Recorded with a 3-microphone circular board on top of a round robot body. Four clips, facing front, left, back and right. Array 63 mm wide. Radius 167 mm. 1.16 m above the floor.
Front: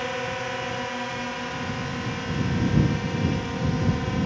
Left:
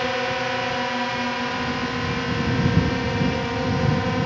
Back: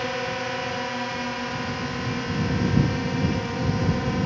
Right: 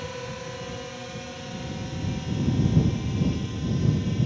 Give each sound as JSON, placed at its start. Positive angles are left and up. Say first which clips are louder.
{"t": 0.0, "sound": "a drone", "louder": "left 11 dB, back 1 dB", "azimuth_deg": 95}